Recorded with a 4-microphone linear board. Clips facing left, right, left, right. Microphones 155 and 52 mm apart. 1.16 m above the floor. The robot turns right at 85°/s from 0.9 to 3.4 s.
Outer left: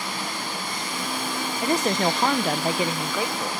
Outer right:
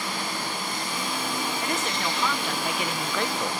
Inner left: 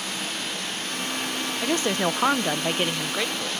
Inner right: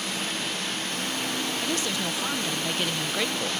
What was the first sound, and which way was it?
A woman speaking, 35° left.